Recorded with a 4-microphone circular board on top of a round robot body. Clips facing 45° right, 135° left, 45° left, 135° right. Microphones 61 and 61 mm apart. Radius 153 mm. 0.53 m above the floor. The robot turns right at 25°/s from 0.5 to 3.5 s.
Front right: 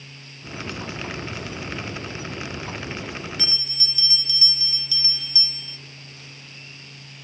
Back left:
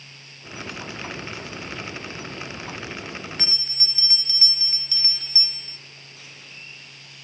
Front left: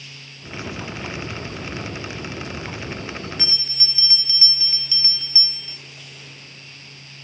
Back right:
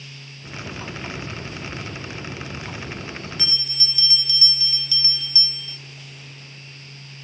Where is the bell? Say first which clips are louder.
Front right 1 dB, even; 95° left, 1.0 m.